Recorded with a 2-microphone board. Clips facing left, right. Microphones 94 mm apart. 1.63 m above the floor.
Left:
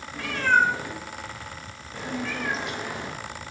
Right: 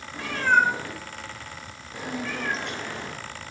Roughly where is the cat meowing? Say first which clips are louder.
Even; right.